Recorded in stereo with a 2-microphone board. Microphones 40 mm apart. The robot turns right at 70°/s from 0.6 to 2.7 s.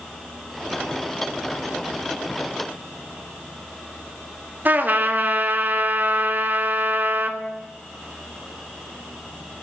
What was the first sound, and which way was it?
A trumpet, 55° right (ahead or behind).